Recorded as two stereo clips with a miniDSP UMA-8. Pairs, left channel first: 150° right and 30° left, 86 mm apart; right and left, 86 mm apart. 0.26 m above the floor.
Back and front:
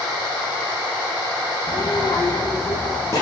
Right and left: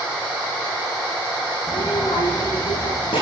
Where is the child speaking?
105° right, 3.5 m; by 3.2 s 95° right, 4 m.